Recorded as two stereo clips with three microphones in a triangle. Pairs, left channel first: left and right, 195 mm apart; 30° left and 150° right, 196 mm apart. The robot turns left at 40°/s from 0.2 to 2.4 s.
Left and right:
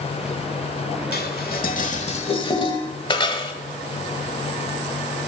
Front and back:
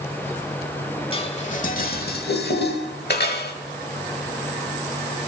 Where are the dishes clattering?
85° left, 1.1 m; by 3.6 s 30° left, 1.1 m.